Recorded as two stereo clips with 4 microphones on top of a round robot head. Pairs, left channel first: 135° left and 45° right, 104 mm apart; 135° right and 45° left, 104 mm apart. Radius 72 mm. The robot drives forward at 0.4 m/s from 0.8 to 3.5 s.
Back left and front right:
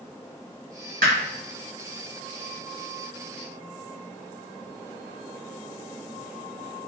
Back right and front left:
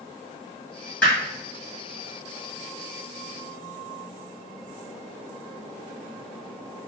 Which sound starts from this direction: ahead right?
Hammering, at 1.0 s.